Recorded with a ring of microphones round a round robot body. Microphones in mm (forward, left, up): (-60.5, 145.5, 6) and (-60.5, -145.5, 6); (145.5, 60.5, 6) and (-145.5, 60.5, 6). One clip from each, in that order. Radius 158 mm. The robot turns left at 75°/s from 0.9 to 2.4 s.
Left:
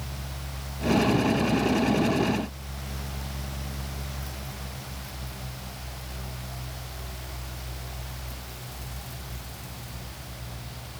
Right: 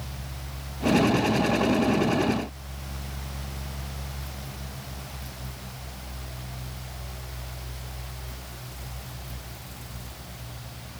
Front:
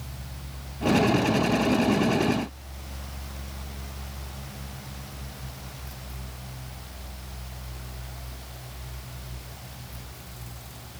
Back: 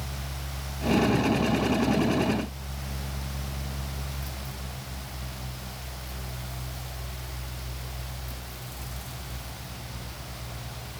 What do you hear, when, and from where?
Only background noise.